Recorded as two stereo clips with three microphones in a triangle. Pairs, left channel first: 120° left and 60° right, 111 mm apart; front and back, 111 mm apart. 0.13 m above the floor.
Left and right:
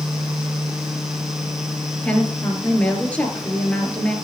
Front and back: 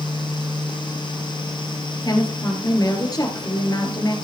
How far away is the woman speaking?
About 2 m.